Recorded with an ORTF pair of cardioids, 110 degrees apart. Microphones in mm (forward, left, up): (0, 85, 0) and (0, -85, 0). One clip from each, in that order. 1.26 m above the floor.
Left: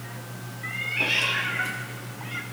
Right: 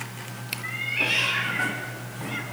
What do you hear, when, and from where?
0.6 s a cat meowing: straight ahead, 1.2 m